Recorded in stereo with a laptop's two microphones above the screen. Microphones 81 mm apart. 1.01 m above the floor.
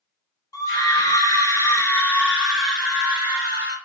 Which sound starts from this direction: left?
A scream, at 0.5 s.